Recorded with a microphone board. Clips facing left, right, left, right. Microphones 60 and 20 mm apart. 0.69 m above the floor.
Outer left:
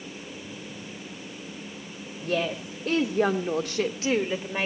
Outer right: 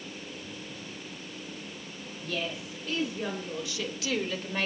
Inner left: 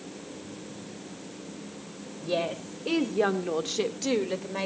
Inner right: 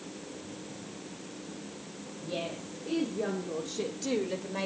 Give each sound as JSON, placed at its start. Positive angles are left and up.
{"t": 2.2, "sound": "a woman speaking", "side_deg": 50, "distance_m": 2.5}